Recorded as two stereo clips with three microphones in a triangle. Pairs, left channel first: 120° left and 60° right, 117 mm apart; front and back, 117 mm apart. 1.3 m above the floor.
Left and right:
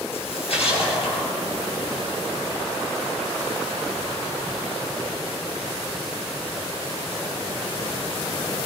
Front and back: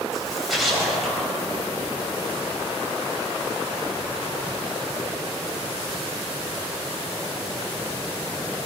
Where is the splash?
90° left, 9 m.